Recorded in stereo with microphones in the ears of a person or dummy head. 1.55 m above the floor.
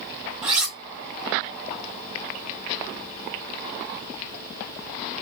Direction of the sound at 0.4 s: 10° right (ahead or behind).